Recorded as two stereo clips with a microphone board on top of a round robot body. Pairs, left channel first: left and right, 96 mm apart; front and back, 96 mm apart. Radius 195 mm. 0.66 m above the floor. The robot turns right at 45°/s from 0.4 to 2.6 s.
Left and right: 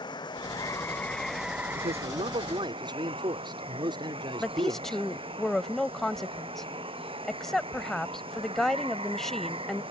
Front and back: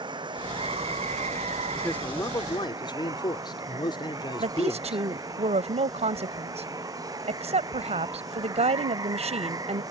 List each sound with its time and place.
0.0 s running water: 135° left; by 9.9 s 125° right
1.8 s a man speaking: 85° right; by 5.4 s 45° right
4.4 s a woman speaking: 175° left